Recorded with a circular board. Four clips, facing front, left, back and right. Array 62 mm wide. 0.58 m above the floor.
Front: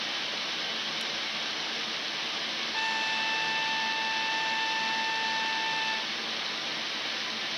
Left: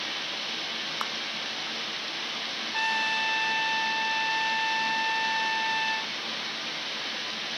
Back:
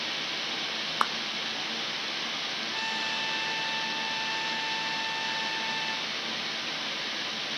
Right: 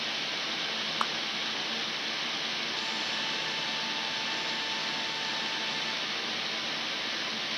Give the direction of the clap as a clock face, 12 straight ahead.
6 o'clock.